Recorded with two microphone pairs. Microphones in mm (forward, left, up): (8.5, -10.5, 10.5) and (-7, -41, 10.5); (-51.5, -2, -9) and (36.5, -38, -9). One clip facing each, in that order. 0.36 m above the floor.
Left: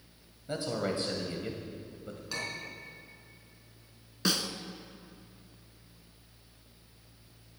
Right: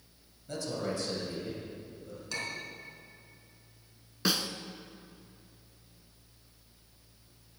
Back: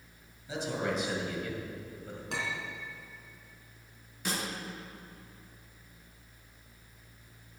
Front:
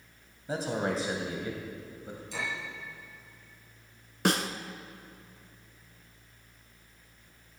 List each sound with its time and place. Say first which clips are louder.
0.5 s a man speaking: left 2 dB, front 2 dB; 10° left, 2 m; by 2.2 s 55° left, 2 m
2.3 s a clink: even, back 1 dB; 145° left, 3.5 m
4.2 s a snare drum: even, front 8 dB; 35° right, 1.0 m